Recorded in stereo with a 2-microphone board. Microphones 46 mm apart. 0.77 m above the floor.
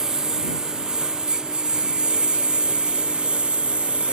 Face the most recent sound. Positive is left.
turn(degrees=-25)  # may be behind; listen again after turning